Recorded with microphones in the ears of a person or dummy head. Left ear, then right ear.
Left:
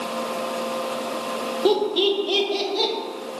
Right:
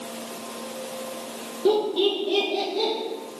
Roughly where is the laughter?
Left.